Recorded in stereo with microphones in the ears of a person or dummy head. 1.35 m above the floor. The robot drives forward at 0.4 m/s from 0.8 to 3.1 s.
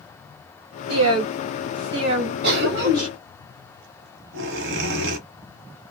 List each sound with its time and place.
0.9 s a woman speaking: 75° right (ahead or behind), 1.0 m; by 3.1 s 45° right (ahead or behind), 1.4 m
2.4 s a cough: 60° right (ahead or behind), 1.2 m; by 5.2 s 70° right (ahead or behind), 1.1 m